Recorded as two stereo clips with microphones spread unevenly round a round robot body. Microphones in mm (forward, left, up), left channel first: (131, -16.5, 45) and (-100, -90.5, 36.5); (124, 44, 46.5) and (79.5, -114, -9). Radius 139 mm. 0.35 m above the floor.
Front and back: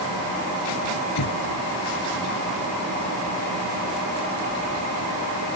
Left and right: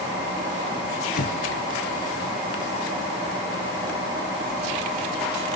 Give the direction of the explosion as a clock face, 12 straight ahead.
11 o'clock.